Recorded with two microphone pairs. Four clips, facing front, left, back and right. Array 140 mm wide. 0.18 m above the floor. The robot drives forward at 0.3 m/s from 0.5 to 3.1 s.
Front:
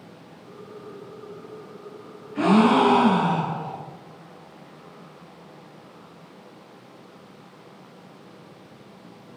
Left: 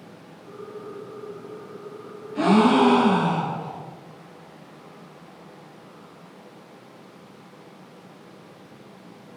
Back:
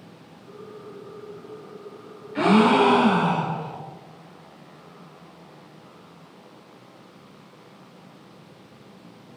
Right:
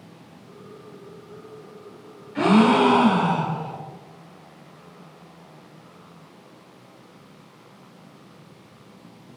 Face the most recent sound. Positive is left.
turn(degrees=-165)